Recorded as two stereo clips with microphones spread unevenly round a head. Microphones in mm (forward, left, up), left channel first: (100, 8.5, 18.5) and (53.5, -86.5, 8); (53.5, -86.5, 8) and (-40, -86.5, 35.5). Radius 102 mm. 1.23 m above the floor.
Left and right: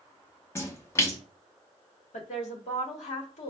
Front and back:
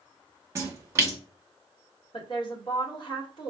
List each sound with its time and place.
0.6 s a splash: 115° left, 0.6 m
2.1 s a woman speaking: 70° left, 1.1 m